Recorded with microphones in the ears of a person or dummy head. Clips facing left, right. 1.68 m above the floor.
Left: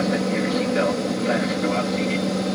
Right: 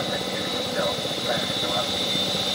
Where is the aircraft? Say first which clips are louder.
Left 7 dB; 45° left (ahead or behind).